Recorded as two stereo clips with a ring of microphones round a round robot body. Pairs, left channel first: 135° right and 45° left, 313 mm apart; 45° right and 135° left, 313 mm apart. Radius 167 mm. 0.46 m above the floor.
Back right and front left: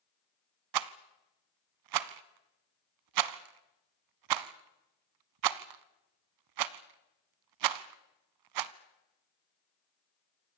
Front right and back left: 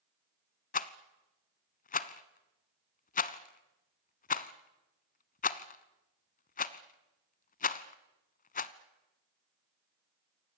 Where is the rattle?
20° left, 0.7 m.